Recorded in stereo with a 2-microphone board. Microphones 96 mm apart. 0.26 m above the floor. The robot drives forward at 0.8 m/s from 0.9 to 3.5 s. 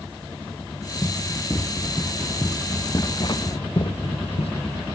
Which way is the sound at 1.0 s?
20° left (ahead or behind).